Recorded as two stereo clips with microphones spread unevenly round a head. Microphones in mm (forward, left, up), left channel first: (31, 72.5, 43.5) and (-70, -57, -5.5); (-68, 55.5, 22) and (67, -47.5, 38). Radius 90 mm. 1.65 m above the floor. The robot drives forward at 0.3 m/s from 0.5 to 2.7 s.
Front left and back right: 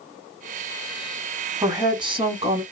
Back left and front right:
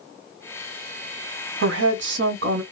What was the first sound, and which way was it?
A woman speaking, 55° right.